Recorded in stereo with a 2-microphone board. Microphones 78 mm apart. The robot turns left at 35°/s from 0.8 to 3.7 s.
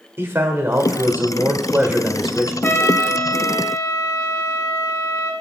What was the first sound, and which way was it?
A man speaking, 120° right.